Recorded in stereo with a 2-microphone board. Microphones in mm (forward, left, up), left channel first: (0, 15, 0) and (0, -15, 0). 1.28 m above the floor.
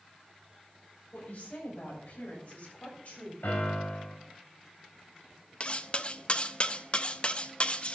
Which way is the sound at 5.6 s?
35° left (ahead or behind).